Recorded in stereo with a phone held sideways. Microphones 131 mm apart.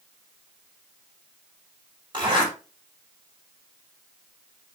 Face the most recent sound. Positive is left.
turn(degrees=-40)  # may be behind; listen again after turning